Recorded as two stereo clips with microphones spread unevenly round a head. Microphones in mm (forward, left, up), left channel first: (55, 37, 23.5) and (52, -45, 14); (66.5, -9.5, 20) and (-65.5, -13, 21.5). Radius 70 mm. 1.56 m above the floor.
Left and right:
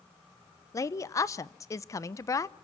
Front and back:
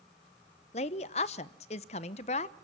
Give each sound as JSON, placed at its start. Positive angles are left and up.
{"t": 0.7, "sound": "a woman speaking", "azimuth_deg": 45, "distance_m": 0.8}